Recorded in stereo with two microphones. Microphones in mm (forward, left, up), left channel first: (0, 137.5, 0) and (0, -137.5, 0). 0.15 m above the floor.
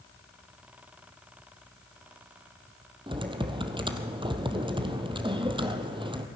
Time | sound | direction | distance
3.1 | typing on a keyboard | 15° right (ahead or behind) | 1.3 m